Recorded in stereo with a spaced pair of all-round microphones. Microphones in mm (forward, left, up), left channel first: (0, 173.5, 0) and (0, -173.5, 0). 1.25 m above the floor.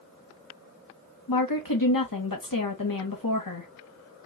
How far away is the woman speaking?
About 0.9 m.